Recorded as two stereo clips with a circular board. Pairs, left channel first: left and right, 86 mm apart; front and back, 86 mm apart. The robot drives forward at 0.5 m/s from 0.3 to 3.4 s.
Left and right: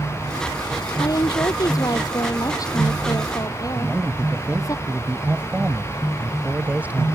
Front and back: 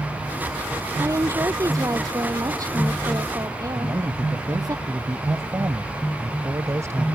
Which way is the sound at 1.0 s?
130° left.